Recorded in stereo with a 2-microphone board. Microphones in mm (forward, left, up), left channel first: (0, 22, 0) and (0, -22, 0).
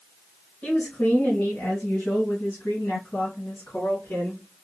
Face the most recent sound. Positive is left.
turn(degrees=70)  # may be behind; listen again after turning